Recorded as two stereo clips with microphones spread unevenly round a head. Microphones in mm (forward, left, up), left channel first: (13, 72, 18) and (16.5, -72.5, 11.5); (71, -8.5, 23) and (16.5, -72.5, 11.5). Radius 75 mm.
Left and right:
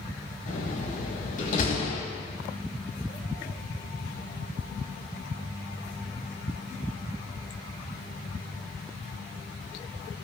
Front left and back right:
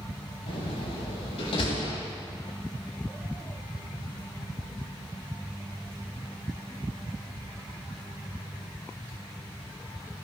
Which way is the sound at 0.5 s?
60° left.